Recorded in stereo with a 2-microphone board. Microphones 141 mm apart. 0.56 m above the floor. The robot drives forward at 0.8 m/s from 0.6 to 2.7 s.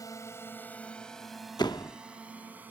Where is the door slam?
30° left (ahead or behind); by 2.0 s 25° left (ahead or behind).